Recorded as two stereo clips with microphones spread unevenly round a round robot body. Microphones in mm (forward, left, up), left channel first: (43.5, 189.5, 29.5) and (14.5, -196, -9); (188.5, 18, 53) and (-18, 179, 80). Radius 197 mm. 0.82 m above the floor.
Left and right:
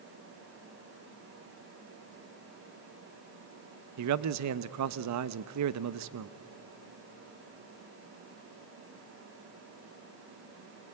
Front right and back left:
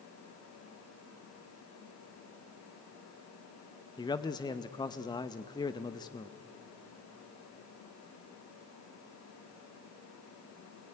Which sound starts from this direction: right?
A man speaking, at 4.0 s.